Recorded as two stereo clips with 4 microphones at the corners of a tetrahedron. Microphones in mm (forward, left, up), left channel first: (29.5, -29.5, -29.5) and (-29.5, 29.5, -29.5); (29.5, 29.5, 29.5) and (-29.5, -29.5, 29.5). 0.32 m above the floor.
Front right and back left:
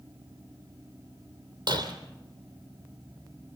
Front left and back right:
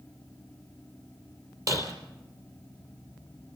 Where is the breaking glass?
175° left, 3 m.